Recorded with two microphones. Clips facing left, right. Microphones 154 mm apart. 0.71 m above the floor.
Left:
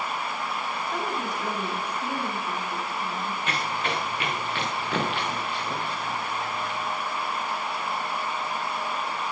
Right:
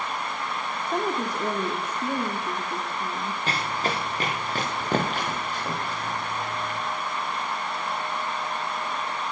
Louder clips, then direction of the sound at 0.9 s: Right 6 dB; 40° right (ahead or behind).